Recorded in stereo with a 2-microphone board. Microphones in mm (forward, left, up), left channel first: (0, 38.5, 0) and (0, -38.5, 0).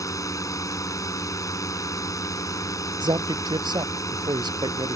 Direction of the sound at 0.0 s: 45° left (ahead or behind).